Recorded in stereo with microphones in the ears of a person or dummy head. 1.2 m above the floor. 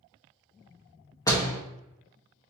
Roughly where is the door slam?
Centre.